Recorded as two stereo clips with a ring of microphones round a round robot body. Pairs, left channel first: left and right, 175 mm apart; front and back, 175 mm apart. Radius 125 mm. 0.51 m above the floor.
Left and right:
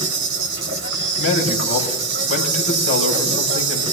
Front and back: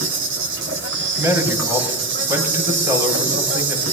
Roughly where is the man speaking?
Left.